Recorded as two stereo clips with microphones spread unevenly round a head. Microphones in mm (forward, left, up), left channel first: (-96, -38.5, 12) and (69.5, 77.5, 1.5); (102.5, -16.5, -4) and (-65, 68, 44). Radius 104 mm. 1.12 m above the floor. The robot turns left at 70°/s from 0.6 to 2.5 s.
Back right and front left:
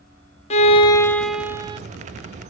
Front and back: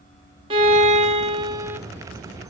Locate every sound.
0.5 s a violin: 175° left, 0.7 m; by 1.8 s 95° left, 0.7 m